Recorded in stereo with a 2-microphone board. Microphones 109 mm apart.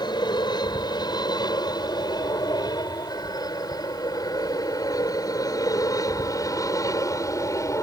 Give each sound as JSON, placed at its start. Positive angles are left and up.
{"t": 0.0, "sound": "an aircraft", "side_deg": 40}